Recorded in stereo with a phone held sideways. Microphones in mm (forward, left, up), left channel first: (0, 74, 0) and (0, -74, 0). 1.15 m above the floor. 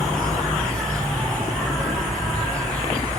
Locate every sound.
0.0 s an insect: 10° left (ahead or behind), 1.6 m